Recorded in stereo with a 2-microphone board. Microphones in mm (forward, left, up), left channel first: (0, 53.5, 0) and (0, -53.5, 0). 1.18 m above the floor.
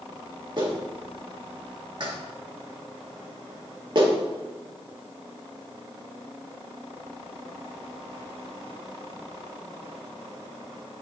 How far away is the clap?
About 1.8 m.